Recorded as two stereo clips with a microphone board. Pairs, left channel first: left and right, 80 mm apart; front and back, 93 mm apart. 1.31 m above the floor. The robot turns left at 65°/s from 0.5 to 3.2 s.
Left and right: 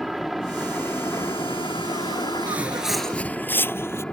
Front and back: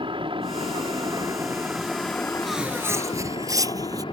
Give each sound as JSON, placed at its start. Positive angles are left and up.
{"t": 0.0, "sound": "a helicopter", "azimuth_deg": 180}
{"t": 2.5, "sound": "footsteps", "azimuth_deg": -95}